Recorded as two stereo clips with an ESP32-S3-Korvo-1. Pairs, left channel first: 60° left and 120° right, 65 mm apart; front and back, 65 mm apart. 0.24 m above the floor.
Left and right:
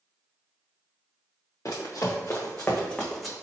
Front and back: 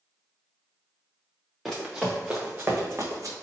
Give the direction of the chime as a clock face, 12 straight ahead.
I don't hear a chime.